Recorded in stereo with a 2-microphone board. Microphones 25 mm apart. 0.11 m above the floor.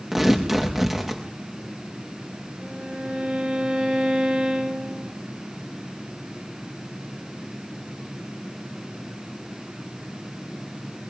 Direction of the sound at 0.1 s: 10° right (ahead or behind).